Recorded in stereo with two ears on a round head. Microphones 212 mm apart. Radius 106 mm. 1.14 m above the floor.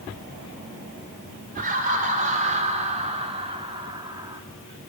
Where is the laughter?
35° right (ahead or behind), 4.5 m; by 4.4 s 15° right (ahead or behind), 2.5 m.